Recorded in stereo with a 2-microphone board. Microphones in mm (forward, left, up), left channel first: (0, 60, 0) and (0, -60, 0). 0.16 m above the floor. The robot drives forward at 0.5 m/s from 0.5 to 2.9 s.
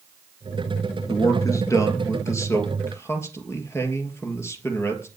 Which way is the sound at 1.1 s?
30° left (ahead or behind).